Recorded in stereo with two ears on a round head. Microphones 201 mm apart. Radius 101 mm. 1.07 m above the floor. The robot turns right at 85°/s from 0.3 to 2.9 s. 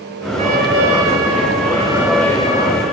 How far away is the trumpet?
About 3 m.